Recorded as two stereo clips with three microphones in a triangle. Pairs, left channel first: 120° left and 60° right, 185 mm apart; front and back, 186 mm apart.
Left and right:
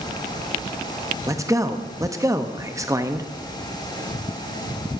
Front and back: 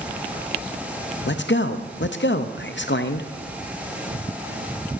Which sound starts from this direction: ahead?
A man speaking, at 1.3 s.